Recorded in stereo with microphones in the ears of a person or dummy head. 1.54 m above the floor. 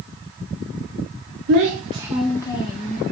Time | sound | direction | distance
1.5 | a child speaking | 50° right (ahead or behind) | 0.7 m